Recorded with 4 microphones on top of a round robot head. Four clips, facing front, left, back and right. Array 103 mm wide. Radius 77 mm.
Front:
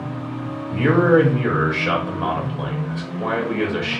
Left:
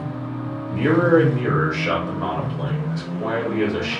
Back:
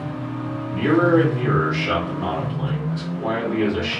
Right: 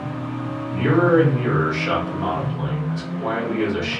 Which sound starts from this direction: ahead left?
A man speaking, at 0.7 s.